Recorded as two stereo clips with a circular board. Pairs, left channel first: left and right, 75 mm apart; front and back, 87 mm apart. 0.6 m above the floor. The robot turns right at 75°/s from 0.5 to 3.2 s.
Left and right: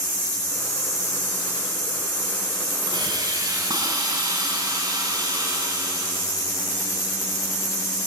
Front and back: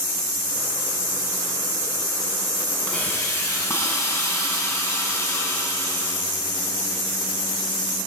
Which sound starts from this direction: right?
A hiss, at 2.9 s.